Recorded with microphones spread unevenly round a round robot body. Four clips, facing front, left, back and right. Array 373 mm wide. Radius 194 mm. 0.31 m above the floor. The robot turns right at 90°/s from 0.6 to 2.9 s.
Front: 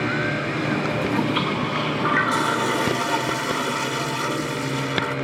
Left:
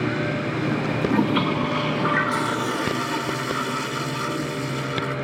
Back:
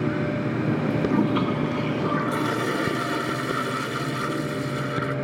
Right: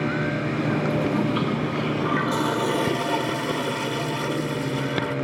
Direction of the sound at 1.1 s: 105° left.